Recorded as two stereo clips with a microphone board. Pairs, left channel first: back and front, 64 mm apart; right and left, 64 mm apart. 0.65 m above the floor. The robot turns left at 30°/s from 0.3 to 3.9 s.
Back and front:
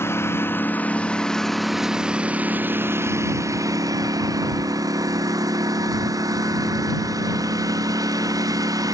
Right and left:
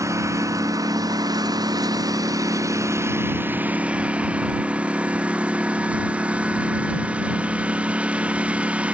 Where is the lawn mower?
130° left; by 8.9 s 20° left.